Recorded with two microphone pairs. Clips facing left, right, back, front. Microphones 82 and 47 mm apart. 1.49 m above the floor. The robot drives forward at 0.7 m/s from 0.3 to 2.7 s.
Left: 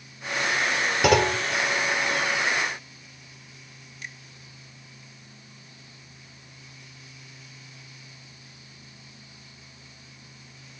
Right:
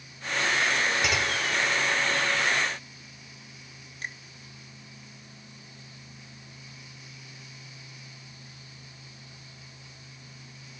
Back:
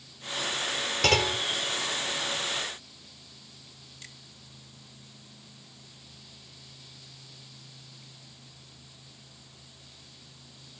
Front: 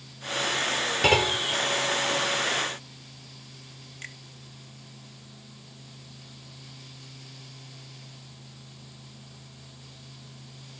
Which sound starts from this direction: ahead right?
A finger snap, at 4.0 s.